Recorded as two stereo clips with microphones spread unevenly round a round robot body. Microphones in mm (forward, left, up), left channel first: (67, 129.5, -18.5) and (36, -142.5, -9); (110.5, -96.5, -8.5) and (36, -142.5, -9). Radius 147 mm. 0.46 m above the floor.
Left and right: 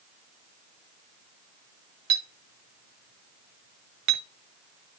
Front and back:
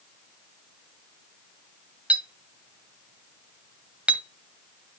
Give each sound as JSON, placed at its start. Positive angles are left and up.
{"t": 2.1, "sound": "a clink", "azimuth_deg": -75, "distance_m": 2.0}